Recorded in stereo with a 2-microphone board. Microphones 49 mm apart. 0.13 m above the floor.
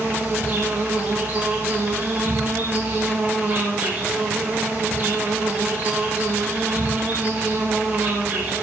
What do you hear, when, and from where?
0.0 s an insect: 40° right (ahead or behind), 5 m